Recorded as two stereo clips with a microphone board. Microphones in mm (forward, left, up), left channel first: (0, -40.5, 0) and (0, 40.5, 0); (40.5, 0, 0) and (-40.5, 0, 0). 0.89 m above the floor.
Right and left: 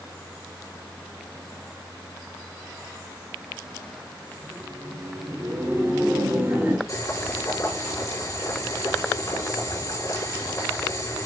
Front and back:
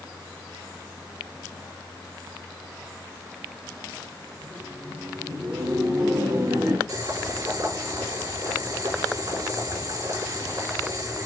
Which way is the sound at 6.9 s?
135° right.